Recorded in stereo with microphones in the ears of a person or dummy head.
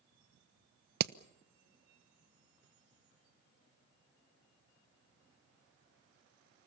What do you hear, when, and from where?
1.0 s hammering: 60° right (ahead or behind), 0.8 m